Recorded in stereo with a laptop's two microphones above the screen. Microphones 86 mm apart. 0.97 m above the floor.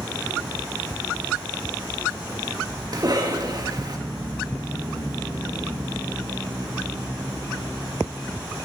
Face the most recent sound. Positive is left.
turn(degrees=-50)  # may be behind; listen again after turning